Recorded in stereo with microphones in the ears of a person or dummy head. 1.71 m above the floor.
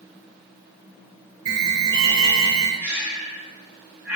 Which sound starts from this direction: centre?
Breathing, at 2.8 s.